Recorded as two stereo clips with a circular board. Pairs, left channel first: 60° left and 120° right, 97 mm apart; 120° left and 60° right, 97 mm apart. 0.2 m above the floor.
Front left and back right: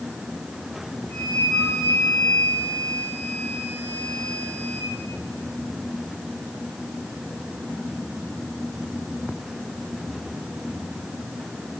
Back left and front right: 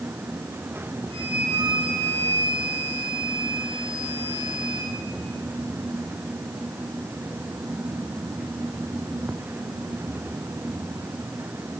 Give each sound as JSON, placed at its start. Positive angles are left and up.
{"t": 1.1, "sound": "a flute", "azimuth_deg": -80, "distance_m": 7.0}